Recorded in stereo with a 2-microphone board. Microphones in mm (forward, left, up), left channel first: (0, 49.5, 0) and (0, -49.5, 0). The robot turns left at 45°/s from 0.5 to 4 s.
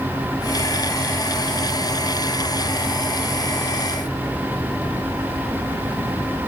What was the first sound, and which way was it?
Only background noise.